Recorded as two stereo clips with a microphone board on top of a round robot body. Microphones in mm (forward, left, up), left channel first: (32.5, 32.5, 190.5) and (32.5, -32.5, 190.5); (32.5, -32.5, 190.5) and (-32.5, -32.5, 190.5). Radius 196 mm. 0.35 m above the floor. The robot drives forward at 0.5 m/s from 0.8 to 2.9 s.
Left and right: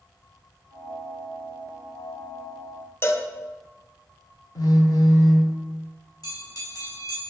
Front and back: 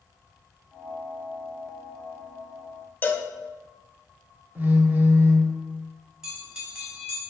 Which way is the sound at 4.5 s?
115° left.